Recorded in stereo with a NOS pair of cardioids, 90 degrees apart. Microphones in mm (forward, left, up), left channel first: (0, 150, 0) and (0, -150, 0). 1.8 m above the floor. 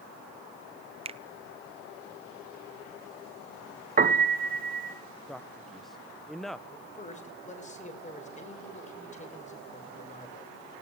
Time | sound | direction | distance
1.1 | a finger snap | 20° right | 1.0 m
4.0 | a piano | 30° right | 2.5 m
5.3 | a man speaking | straight ahead | 1.8 m
6.7 | a man speaking | 25° left | 6 m